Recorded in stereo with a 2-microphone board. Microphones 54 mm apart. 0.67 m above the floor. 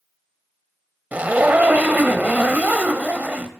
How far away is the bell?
I don't hear a bell.